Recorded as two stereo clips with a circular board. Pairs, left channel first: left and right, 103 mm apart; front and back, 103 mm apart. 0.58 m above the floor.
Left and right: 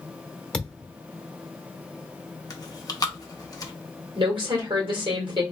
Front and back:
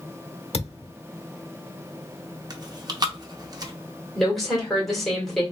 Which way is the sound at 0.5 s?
10° left.